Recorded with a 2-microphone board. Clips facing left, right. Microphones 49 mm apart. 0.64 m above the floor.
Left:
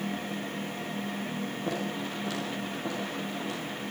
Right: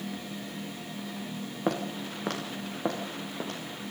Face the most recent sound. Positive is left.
turn(degrees=-50)  # may be behind; listen again after turning